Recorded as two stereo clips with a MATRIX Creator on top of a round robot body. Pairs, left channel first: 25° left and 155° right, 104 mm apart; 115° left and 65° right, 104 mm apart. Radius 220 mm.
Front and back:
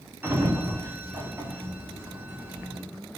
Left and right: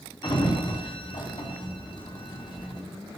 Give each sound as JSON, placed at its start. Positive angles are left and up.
{"t": 0.2, "sound": "a sliding door", "azimuth_deg": 140, "distance_m": 0.9}